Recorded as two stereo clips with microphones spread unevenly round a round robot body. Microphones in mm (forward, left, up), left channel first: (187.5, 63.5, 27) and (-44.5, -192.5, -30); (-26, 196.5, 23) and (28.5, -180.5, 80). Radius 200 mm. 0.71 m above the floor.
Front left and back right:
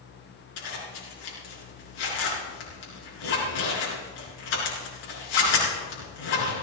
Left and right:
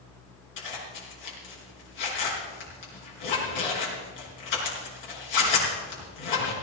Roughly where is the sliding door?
I don't hear a sliding door.